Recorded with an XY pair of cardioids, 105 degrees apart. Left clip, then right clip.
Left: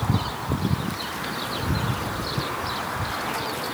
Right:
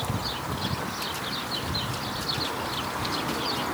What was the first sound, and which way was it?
Only background noise.